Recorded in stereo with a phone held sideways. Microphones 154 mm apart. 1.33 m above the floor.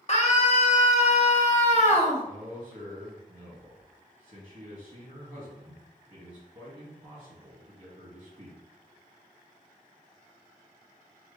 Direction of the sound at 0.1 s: 45° left (ahead or behind).